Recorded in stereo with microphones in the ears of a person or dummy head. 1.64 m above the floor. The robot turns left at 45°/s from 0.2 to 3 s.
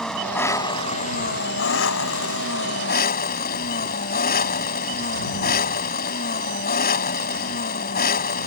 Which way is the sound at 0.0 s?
175° left.